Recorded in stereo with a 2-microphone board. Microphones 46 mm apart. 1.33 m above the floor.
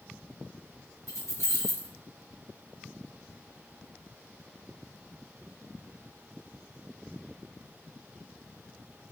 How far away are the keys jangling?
About 1.6 m.